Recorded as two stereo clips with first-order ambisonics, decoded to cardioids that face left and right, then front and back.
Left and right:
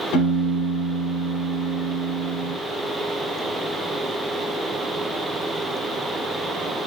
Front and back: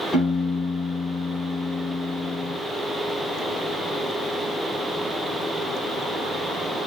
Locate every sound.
0.1 s a piano: 80° left, 5.5 m